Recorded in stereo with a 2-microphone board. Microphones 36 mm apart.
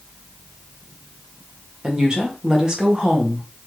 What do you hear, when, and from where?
1.8 s a woman speaking: 20° right (ahead or behind), 1.3 m